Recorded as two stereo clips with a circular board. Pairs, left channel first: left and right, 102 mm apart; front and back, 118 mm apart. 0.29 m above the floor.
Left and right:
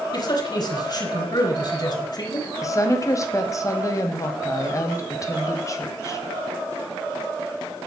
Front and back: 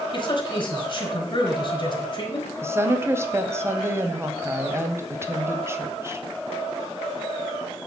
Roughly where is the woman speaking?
Behind left.